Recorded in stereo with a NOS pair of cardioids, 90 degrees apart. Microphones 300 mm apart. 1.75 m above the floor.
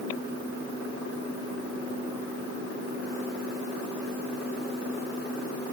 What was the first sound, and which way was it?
Only background noise.